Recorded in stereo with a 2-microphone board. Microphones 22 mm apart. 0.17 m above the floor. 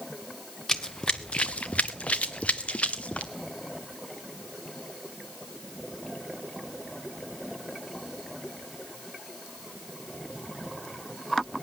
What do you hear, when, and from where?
0.7 s running footsteps: 30° left (ahead or behind), 0.8 m; by 3.3 s 65° left (ahead or behind), 1.4 m